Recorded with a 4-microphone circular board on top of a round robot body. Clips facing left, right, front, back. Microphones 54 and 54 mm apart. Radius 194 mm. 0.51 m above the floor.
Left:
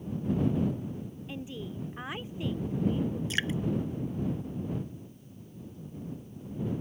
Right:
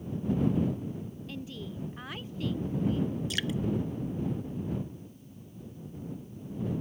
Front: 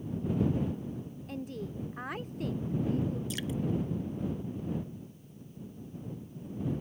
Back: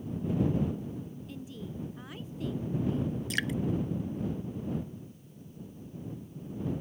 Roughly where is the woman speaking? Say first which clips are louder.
Left 3 dB, front 3 dB; ahead.